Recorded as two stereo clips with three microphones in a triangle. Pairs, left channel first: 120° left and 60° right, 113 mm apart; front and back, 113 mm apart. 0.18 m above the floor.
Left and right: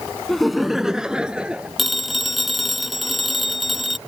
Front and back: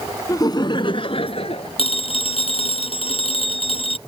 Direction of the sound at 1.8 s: 30° left.